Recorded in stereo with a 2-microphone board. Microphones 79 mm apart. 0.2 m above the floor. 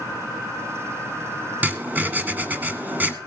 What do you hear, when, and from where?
1.6 s writing: 20° right (ahead or behind), 1.6 m